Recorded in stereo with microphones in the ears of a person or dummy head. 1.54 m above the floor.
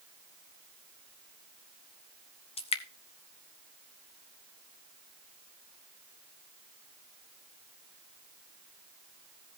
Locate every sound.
2.6 s dripping: 30° left (ahead or behind), 0.6 m